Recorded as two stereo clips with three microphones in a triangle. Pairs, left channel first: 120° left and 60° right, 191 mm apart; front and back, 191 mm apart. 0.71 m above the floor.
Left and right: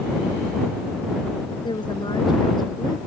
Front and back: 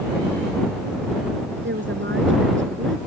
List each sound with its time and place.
1.6 s a woman speaking: 175° right; by 3.0 s 170° right